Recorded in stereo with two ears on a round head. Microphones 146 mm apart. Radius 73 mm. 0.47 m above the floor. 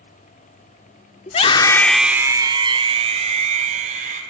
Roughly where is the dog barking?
No dog barking in this recording.